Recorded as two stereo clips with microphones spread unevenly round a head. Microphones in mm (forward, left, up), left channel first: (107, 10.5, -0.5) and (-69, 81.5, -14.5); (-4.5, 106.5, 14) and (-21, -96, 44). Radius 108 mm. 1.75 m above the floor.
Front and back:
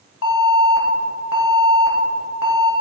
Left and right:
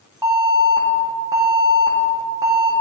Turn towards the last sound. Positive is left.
turn(degrees=-20)